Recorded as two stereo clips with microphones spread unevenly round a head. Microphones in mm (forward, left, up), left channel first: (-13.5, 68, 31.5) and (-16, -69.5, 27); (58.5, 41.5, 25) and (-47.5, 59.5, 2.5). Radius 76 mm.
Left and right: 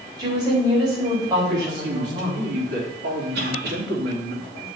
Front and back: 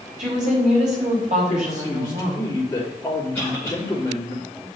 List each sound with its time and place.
0.2 s a woman speaking: 155° right, 4 m
1.5 s a man speaking: 85° right, 3 m
3.3 s a cough: 90° right, 3 m